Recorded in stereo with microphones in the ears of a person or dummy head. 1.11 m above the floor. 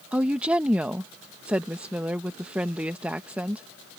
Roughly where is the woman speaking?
Centre.